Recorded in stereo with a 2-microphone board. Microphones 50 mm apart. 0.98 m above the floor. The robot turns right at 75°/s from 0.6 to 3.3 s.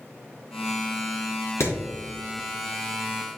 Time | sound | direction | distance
1.6 | hammering | 75° left (ahead or behind) | 2.5 m